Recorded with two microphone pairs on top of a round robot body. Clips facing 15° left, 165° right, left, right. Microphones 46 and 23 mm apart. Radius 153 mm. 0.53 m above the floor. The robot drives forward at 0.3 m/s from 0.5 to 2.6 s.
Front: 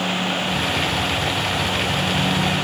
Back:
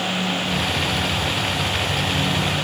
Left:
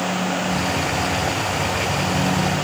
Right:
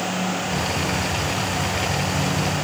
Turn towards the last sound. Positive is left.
No sound to turn to.